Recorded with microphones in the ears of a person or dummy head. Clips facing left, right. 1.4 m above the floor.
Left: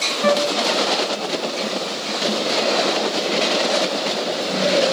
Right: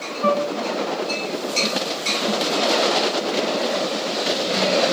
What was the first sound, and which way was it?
A flute, 25° left (ahead or behind).